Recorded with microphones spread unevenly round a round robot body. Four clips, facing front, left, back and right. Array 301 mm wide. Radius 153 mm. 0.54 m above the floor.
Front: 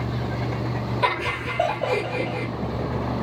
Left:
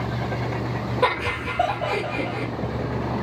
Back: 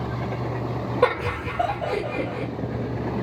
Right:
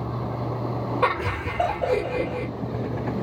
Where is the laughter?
165° left, 1.7 m; by 2.5 s 145° left, 1.3 m.